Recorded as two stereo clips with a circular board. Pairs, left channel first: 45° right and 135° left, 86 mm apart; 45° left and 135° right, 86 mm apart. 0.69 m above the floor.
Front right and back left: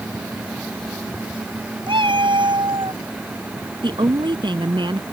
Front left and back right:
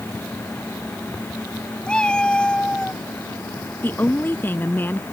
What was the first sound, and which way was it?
A cat meowing, 125° left.